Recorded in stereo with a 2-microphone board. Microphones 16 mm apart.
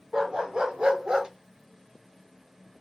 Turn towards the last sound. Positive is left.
turn(degrees=-40)  # may be behind; listen again after turning